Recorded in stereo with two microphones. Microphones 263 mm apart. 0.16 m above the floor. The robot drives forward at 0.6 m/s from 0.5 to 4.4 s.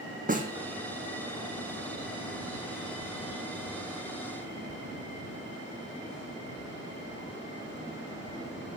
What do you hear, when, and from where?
0.3 s a snare drum: 30° right (ahead or behind), 1.4 m